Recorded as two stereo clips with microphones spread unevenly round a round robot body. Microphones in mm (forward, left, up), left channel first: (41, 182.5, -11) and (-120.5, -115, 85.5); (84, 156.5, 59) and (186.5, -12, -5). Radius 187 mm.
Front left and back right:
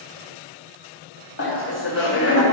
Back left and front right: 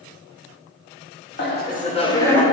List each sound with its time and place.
1.4 s laughter: 85° left, 1.4 m; by 2.4 s 25° left, 1.6 m